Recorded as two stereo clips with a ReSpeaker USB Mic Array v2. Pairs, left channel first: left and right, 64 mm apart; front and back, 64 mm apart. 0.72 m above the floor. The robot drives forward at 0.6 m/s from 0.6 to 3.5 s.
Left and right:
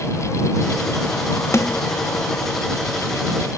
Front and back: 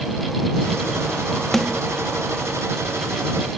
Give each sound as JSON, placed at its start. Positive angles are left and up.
{"t": 1.5, "sound": "a snare drum", "azimuth_deg": 85}